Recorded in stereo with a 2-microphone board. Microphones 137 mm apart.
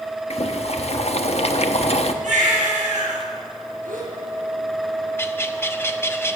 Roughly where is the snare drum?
I don't hear a snare drum.